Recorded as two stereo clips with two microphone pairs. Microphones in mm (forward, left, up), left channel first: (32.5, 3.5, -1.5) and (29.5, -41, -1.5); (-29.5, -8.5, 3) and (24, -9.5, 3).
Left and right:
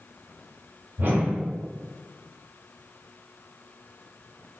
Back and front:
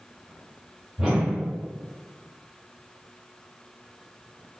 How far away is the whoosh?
About 1.3 m.